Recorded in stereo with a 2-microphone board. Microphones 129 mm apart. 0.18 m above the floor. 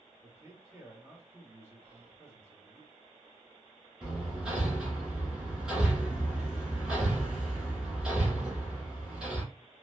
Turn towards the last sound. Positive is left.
turn(degrees=-5)  # may be behind; listen again after turning